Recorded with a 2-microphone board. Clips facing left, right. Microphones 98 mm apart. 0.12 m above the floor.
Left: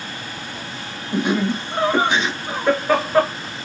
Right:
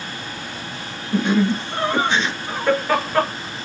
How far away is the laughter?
About 1.7 m.